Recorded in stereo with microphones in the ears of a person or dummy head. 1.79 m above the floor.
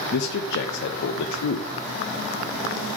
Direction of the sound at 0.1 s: 65° left (ahead or behind).